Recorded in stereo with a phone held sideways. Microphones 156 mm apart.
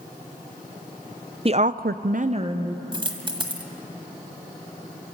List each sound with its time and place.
1.4 s a woman speaking: 40° right (ahead or behind), 0.8 m; by 2.8 s 25° right (ahead or behind), 1.3 m
2.9 s a dropped coin: 35° right (ahead or behind), 1.4 m